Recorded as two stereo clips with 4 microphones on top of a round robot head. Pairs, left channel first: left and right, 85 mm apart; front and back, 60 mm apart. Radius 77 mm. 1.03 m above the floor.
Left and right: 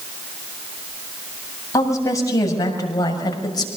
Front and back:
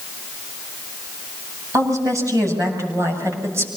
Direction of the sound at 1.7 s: 145° left.